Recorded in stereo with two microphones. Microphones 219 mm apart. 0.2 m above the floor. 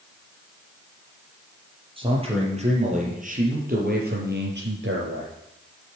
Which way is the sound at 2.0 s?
25° right (ahead or behind).